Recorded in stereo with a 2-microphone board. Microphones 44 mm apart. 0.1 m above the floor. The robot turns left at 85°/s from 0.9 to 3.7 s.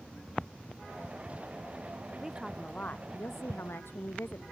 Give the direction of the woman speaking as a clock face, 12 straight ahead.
5 o'clock.